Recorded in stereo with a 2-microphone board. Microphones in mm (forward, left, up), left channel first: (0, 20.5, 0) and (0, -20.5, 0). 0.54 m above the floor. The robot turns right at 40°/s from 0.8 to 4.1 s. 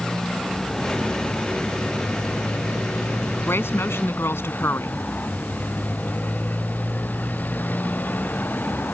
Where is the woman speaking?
65° left (ahead or behind); by 5.0 s 80° left.